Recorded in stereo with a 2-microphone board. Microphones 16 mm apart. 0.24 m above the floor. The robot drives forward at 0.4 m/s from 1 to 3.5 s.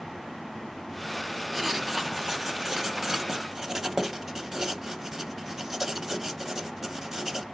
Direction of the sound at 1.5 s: 15° right (ahead or behind).